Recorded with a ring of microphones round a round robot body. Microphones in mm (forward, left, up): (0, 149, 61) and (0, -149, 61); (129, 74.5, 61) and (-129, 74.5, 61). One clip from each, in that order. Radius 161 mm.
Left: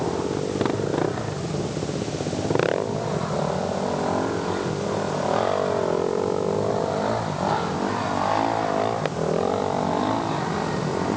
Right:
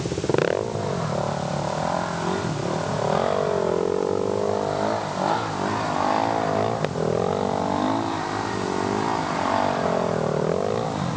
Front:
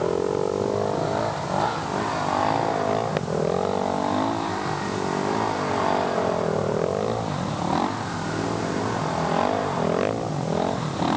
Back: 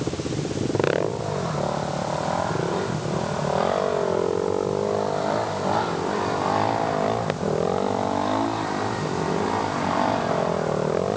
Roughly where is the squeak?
I don't hear a squeak.